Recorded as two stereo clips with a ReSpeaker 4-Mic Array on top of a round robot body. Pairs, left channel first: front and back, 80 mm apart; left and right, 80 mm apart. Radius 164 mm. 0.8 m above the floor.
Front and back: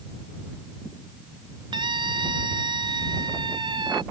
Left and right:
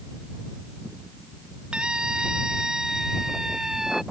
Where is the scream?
170° right; by 4.0 s 175° right.